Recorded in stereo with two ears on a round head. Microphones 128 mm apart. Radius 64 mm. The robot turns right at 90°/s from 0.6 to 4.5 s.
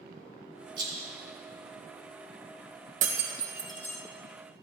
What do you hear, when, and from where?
0.8 s a rattle: 35° right (ahead or behind), 3 m; by 1.1 s centre (ahead or behind), 3 m
3.0 s breaking glass: 55° right (ahead or behind), 2.0 m; by 4.0 s 25° left (ahead or behind), 2.0 m